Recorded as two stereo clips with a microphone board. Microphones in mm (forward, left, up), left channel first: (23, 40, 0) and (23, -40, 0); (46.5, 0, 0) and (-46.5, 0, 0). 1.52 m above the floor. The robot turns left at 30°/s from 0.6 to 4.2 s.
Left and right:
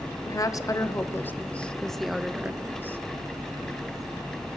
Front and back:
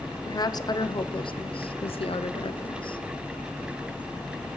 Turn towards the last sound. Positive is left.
turn(degrees=-65)